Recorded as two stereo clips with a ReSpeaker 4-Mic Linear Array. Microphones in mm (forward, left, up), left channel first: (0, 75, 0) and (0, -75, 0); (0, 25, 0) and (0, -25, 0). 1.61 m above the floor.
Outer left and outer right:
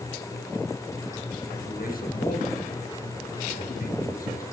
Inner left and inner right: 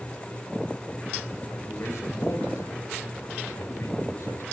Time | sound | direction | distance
1.5 | a man speaking | 70° left (ahead or behind) | 7 m